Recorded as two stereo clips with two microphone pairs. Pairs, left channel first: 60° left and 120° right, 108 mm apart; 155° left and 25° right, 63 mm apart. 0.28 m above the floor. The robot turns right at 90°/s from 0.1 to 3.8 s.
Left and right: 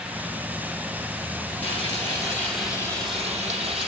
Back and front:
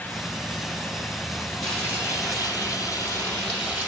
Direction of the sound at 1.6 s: 65° left.